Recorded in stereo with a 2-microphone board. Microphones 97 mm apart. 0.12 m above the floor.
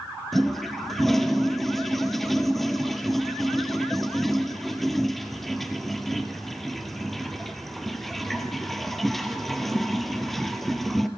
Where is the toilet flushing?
Centre (ahead or behind), 1.4 m.